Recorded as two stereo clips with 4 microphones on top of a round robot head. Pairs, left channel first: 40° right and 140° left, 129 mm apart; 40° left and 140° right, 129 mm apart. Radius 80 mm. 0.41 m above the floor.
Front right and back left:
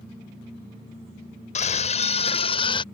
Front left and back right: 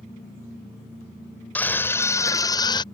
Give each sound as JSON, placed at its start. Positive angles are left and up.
{"t": 1.6, "sound": "a scream", "azimuth_deg": -35}